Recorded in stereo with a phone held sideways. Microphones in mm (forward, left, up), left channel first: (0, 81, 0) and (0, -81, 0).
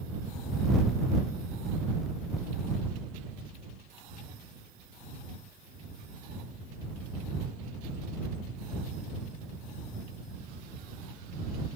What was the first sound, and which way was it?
Only background noise.